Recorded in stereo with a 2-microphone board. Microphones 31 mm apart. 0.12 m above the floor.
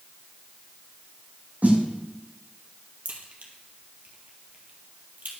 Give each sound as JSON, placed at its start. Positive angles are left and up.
{"t": 1.6, "sound": "a snare drum", "side_deg": -50, "distance_m": 1.7}
{"t": 3.0, "sound": "a crack", "side_deg": -55, "distance_m": 1.6}